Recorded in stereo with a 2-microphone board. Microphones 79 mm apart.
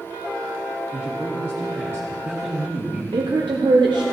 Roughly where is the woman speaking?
Right.